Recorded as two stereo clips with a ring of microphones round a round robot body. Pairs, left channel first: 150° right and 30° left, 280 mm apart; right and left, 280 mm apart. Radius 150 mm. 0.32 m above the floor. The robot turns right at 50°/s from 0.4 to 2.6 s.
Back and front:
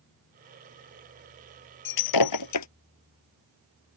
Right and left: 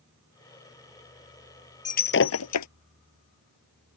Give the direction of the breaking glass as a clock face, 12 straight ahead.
5 o'clock.